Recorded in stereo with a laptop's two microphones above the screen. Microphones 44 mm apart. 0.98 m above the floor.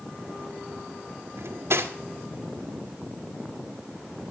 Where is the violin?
I don't hear a violin.